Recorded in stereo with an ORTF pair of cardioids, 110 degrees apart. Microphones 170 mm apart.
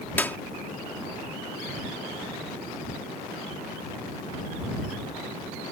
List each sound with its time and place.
0.2 s a clap: 10° left